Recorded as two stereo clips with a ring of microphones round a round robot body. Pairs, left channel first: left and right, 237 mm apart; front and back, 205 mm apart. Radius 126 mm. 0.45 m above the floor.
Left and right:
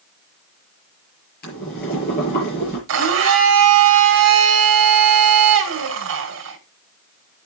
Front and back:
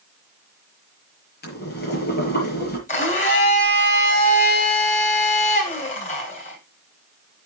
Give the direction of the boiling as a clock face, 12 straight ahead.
11 o'clock.